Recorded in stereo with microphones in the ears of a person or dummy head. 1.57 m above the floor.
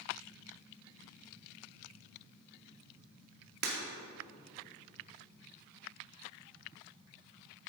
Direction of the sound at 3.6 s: 45° right (ahead or behind).